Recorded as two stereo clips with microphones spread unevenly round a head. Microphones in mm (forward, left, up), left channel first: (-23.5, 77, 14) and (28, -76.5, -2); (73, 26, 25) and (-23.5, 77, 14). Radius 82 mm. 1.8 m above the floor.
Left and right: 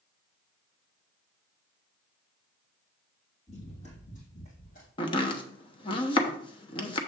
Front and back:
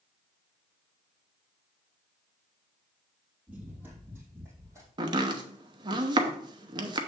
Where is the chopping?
130° left, 0.8 m.